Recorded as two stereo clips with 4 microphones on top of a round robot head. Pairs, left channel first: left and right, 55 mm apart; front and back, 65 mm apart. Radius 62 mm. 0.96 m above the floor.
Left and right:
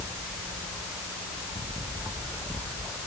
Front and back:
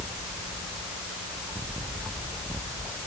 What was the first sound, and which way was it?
Only background noise.